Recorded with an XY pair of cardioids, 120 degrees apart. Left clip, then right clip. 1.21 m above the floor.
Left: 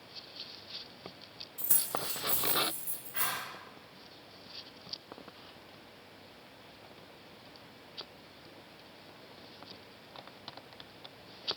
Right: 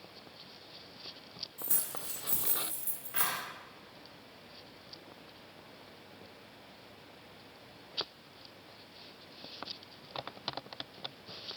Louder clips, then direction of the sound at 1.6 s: Left 10 dB; 35° left.